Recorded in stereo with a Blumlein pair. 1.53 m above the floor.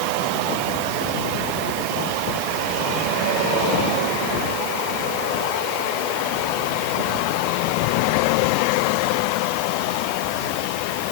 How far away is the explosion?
I don't hear an explosion.